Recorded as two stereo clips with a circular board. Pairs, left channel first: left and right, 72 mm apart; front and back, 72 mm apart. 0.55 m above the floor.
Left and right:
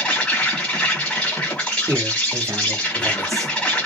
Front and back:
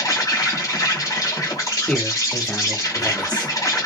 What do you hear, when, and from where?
0.0 s an insect: 20° left, 1.4 m
1.9 s a man speaking: 70° right, 1.1 m